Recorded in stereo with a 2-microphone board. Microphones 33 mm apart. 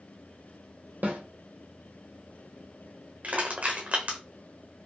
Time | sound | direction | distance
1.0 | a snare drum | 75° right (ahead or behind) | 1.2 m
3.2 | crushing | 55° right (ahead or behind) | 1.2 m